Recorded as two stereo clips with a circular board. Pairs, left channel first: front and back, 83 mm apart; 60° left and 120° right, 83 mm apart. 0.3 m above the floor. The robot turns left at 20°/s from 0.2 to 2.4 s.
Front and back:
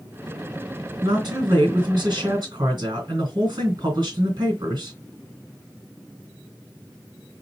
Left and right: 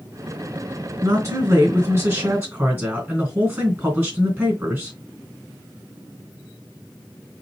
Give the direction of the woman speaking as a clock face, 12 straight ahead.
5 o'clock.